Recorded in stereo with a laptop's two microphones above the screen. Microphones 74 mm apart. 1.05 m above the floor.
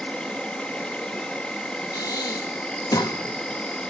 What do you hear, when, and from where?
0.0 s an insect: 10° left (ahead or behind), 1.5 m
1.9 s breathing: 60° left (ahead or behind), 1.5 m